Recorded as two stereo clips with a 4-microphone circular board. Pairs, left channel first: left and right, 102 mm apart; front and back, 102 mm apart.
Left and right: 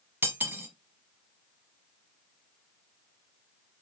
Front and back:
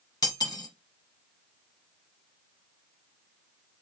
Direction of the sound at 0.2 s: 25° right.